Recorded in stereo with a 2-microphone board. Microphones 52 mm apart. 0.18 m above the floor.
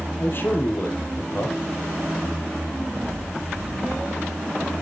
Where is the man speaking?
50° left (ahead or behind), 4.5 m.